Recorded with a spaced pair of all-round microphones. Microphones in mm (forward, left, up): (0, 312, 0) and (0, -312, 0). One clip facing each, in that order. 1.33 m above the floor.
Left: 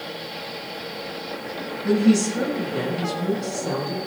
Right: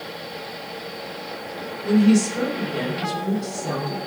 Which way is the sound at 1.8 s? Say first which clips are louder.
Right 1 dB; 70° left (ahead or behind).